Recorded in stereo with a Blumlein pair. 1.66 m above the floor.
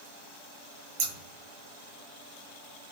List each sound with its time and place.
1.0 s scissors: 45° right, 0.6 m